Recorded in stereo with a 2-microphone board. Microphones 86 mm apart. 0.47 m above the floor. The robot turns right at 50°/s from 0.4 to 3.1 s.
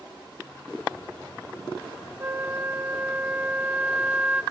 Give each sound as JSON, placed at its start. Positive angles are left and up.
{"t": 2.2, "sound": "a flute", "side_deg": -25, "distance_m": 0.8}